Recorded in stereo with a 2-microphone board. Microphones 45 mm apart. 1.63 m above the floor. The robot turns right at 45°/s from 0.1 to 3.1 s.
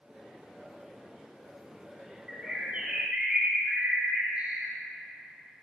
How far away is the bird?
About 1.2 m.